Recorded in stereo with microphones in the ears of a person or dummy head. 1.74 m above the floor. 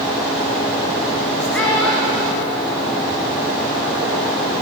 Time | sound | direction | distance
1.5 | a child speaking | 5° left (ahead or behind) | 0.7 m